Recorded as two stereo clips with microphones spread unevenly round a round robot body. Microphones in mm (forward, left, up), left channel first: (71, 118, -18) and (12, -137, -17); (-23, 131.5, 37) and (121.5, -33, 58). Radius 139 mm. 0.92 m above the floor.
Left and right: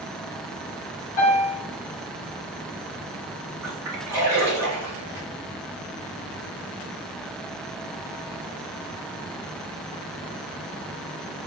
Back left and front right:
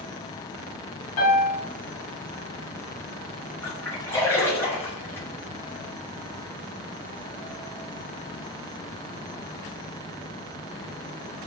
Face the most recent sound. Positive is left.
turn(degrees=-175)